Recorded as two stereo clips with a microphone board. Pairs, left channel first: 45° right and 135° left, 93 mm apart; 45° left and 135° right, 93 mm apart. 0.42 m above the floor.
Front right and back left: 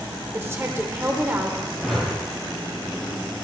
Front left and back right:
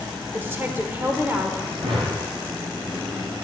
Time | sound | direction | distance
0.3 | a woman speaking | straight behind | 1.0 m
1.8 | a whoosh | 135° right | 2.5 m